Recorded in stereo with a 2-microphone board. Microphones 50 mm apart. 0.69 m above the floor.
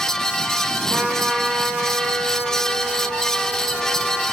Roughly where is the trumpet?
Centre.